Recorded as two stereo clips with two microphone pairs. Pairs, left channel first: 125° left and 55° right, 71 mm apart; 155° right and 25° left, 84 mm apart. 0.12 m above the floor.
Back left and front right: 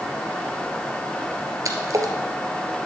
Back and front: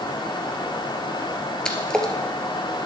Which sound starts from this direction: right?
A splash, at 1.6 s.